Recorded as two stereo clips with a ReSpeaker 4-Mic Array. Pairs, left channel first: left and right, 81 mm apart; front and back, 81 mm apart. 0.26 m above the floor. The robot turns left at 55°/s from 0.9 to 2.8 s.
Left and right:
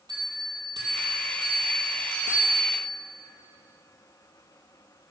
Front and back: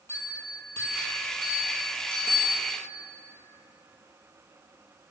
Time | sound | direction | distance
0.1 | a bell | 60° right | 1.9 m